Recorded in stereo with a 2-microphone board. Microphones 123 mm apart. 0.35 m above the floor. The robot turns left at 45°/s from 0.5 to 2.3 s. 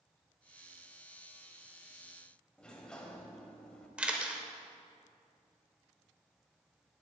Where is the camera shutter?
10° right (ahead or behind), 0.9 m.